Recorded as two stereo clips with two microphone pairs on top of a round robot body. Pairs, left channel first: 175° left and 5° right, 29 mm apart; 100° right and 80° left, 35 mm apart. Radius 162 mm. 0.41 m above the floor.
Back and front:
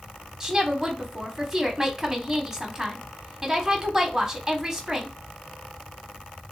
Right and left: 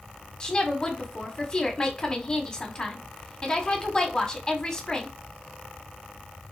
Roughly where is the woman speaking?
Right.